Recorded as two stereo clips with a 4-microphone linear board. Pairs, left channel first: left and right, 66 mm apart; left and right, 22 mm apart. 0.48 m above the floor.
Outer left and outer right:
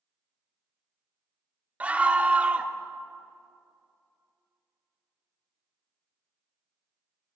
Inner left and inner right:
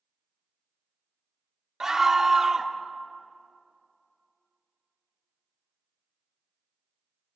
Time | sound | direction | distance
1.8 | a scream | 20° right (ahead or behind) | 0.7 m